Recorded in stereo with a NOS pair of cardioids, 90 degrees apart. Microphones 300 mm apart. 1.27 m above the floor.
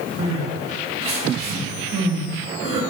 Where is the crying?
50° right, 1.1 m.